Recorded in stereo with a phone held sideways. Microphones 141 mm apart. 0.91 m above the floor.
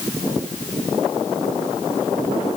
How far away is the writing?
I don't hear writing.